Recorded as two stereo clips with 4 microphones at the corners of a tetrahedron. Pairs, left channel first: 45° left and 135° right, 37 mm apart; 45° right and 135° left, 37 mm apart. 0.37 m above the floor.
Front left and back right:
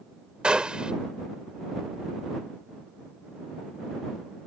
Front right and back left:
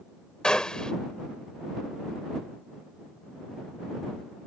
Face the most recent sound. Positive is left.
turn(degrees=-95)